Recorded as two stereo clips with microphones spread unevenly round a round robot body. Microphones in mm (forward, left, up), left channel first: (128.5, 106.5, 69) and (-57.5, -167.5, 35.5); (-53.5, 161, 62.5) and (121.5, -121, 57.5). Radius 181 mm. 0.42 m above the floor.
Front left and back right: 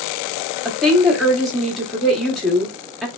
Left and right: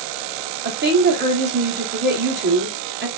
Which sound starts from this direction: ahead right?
A woman speaking, at 0.7 s.